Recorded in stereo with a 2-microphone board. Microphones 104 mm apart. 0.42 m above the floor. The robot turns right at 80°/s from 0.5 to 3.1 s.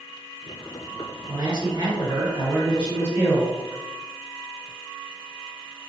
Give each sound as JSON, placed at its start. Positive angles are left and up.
{"t": 1.3, "sound": "a man speaking", "azimuth_deg": -110, "distance_m": 1.7}